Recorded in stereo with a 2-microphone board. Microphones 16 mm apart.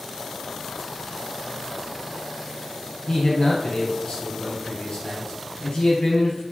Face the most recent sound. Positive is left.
turn(degrees=65)  # may be behind; listen again after turning